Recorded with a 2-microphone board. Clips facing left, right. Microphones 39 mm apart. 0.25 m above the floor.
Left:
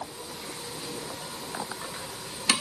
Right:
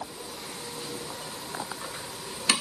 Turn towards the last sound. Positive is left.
No sound to turn to.